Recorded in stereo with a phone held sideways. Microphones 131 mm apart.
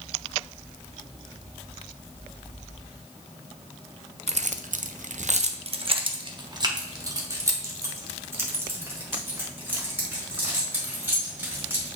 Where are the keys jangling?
55° right (ahead or behind), 0.6 m; by 11.9 s 15° right (ahead or behind), 4 m.